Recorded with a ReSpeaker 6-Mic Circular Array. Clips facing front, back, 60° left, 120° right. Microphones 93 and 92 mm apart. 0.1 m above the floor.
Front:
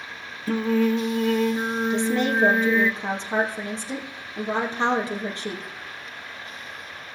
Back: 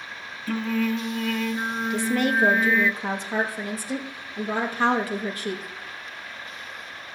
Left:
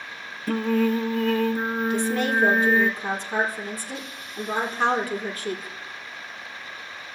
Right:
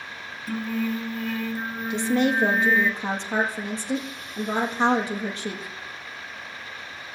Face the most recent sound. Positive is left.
turn(degrees=-60)